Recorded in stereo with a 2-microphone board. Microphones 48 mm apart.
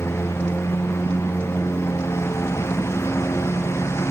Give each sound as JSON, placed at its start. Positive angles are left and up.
{"t": 0.0, "sound": "a lawn mower", "side_deg": 75}